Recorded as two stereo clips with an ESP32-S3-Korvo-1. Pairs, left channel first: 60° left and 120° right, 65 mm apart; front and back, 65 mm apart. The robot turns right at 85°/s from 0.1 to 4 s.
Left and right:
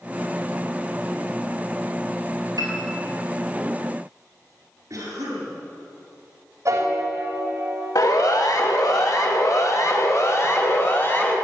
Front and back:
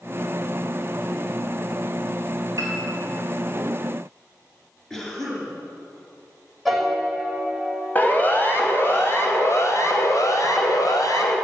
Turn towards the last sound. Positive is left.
turn(degrees=5)